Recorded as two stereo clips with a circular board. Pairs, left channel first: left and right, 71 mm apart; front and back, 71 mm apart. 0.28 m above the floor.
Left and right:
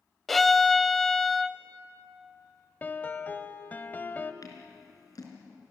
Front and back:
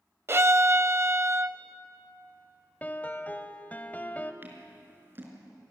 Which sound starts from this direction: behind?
A violin, at 0.3 s.